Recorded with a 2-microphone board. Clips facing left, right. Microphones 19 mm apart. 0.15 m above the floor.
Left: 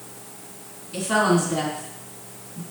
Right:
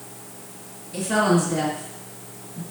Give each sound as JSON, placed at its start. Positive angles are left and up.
{"t": 0.9, "sound": "a woman speaking", "side_deg": 30, "distance_m": 1.9}